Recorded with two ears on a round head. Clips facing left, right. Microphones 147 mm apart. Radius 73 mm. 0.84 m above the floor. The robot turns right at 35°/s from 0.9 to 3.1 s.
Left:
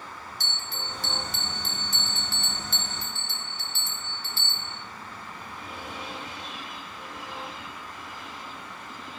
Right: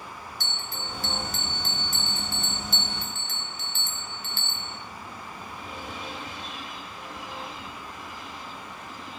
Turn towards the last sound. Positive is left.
turn(degrees=145)